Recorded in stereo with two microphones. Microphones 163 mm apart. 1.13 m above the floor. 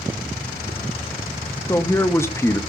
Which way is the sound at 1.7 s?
15° left (ahead or behind).